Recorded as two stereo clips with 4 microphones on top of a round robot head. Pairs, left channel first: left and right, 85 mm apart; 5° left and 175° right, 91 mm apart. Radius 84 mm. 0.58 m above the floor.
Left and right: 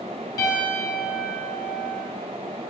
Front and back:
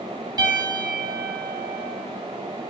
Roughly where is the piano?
Behind left.